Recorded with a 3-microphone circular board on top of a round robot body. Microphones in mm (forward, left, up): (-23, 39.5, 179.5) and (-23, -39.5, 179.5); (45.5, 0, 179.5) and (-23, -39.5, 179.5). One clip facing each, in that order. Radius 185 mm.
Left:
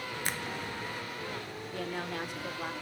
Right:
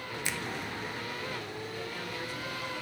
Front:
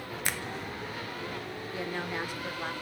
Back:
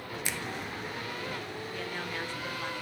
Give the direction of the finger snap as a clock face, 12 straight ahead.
10 o'clock.